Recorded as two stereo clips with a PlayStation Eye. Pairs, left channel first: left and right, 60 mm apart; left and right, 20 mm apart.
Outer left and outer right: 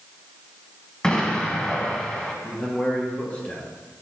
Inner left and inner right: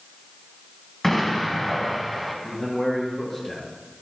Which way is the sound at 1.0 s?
15° left (ahead or behind).